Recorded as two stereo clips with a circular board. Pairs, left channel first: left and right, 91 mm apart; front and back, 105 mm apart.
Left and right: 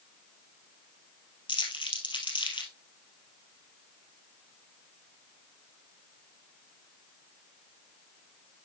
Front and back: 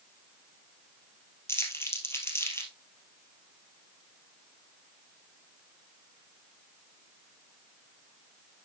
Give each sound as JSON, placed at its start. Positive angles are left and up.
{"t": 1.5, "sound": "crumpling", "azimuth_deg": 65, "distance_m": 2.5}